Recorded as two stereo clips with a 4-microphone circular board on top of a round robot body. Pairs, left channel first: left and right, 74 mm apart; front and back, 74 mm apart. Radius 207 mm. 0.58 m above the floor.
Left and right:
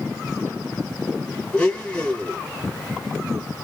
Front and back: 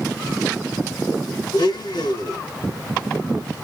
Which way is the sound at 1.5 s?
15° left.